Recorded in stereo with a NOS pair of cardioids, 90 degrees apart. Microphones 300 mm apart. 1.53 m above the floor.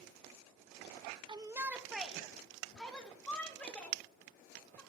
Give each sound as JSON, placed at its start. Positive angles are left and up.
{"t": 1.3, "sound": "a shout", "azimuth_deg": -15, "distance_m": 0.8}